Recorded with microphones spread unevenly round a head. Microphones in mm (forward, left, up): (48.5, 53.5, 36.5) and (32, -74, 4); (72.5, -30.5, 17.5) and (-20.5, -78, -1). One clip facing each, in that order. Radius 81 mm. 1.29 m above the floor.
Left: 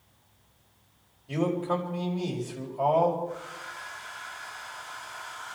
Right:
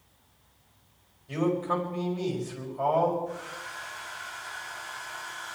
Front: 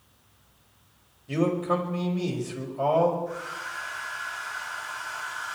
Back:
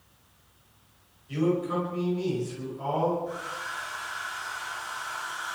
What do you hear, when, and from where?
1.3 s a man speaking: 5° left, 5.5 m
3.3 s a hair dryer: 75° right, 9 m